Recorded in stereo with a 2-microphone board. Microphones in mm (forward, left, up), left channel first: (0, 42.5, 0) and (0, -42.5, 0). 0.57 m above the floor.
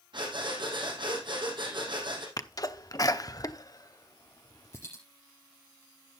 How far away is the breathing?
About 3.5 m.